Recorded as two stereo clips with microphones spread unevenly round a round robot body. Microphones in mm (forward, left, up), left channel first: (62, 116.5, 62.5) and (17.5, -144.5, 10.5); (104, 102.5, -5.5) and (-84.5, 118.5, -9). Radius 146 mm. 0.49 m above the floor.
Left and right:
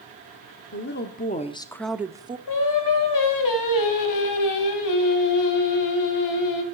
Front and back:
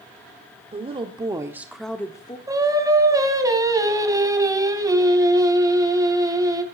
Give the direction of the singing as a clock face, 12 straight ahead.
9 o'clock.